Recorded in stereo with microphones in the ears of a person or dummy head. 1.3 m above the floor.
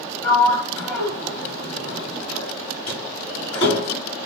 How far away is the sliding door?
About 1.7 m.